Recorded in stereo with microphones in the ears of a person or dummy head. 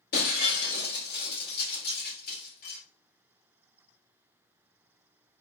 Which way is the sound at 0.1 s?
55° left (ahead or behind).